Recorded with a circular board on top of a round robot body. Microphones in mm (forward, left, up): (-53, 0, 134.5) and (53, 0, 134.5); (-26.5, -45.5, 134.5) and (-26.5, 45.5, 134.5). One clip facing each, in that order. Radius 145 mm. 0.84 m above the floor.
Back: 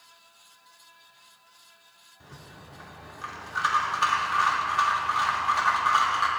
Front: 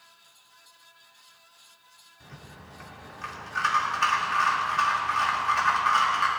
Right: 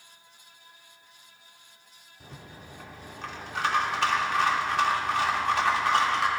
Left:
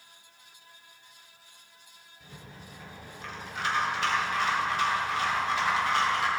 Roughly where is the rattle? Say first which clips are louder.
Even, right 2 dB; right.